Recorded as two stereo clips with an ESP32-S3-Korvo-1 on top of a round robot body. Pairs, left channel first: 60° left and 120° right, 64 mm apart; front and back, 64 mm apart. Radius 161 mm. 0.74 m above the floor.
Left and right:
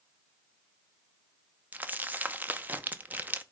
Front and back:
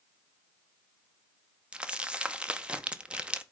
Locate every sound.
1.7 s crumpling: 125° right, 1.1 m